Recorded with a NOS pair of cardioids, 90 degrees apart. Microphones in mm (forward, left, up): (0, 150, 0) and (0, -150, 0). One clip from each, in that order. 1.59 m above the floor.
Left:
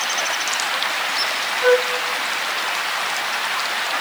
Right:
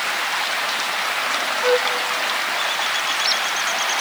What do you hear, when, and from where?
1.6 s a flute: 65° left, 3.5 m